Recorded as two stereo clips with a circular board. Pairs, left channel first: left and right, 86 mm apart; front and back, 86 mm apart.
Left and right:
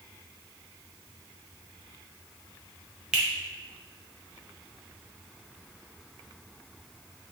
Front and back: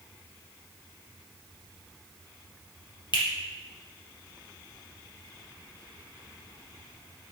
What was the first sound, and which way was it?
A finger snap, 10° right.